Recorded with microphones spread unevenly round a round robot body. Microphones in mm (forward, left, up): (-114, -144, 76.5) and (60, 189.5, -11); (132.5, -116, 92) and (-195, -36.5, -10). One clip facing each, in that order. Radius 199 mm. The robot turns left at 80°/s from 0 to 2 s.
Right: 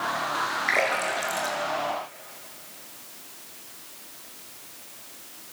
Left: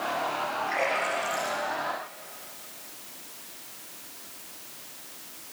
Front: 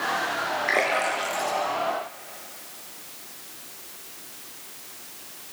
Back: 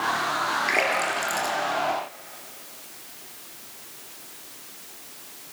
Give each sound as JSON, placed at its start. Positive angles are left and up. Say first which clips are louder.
{"t": 0.7, "sound": "a splash", "louder": "right 3 dB, front 1 dB", "azimuth_deg": -120, "distance_m": 6.0}